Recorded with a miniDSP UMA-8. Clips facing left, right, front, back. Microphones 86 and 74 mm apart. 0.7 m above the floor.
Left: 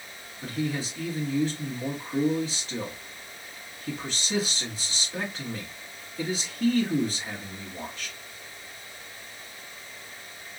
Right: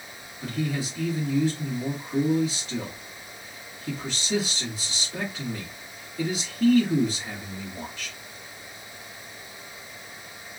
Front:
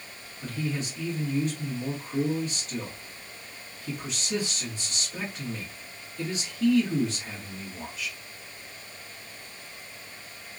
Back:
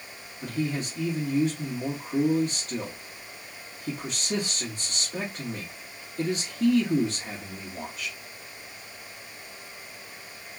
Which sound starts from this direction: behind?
A man speaking, at 0.4 s.